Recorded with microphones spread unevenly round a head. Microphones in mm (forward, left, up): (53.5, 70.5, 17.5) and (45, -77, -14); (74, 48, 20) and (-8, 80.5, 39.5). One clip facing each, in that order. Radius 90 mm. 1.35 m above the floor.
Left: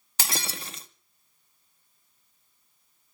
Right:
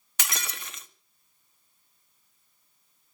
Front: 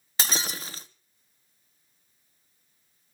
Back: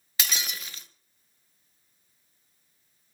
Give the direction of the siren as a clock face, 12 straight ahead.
I don't hear a siren.